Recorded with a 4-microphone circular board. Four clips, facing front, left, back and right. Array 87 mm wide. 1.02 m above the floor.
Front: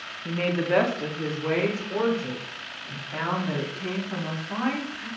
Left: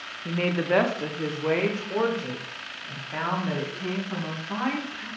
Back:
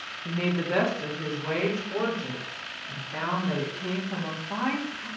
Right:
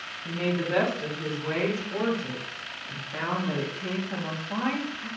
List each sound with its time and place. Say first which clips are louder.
0.2 s a woman speaking: left 3 dB, front 3 dB; 65° left, 0.6 m; by 5.1 s 75° left, 3 m